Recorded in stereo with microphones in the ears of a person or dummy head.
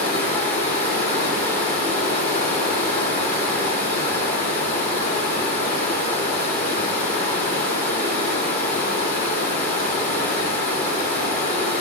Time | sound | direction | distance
0.0 | running water | 40° left (ahead or behind) | 2 m